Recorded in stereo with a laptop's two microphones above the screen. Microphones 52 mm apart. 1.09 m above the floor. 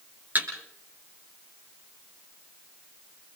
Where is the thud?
35° right (ahead or behind), 6.5 m.